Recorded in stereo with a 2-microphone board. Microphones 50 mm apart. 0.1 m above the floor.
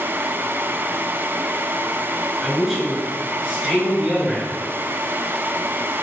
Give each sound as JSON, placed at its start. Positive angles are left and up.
{"t": 2.4, "sound": "a man speaking", "side_deg": -5, "distance_m": 1.2}